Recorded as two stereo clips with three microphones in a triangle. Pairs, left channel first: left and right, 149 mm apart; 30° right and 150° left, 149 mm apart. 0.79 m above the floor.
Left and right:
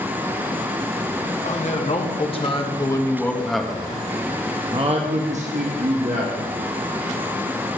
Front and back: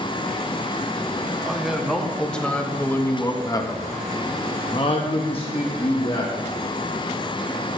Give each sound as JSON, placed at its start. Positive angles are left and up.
{"t": 1.4, "sound": "a man speaking", "azimuth_deg": 65, "distance_m": 1.5}